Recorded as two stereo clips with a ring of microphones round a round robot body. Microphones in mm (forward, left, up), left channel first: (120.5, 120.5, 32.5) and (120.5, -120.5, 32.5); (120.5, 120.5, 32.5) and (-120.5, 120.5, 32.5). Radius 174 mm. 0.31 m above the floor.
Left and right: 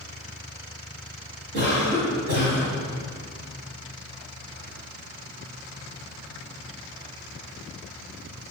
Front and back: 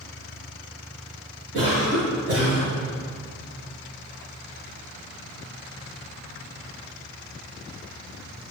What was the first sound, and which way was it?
A cough, 115° right.